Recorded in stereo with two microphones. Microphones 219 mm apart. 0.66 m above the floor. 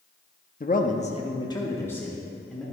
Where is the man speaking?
40° left (ahead or behind), 0.7 m; by 2.6 s centre (ahead or behind), 1.5 m.